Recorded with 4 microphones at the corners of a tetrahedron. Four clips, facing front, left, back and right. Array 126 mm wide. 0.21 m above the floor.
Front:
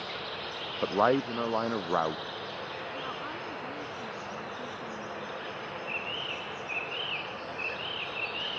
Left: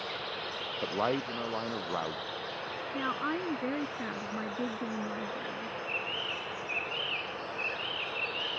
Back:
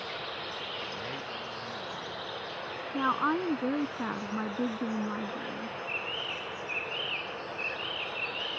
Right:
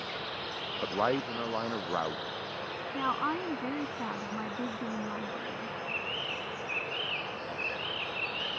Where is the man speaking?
Straight ahead; by 2.8 s 15° right.